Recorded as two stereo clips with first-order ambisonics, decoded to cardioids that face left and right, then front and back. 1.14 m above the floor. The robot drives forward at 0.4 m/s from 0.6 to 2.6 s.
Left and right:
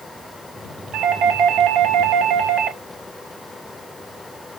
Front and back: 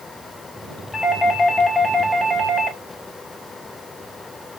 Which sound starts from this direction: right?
A doorbell, at 0.9 s.